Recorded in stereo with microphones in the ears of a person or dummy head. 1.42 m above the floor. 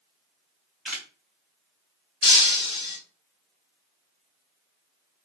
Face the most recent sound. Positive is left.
turn(degrees=35)  # may be behind; listen again after turning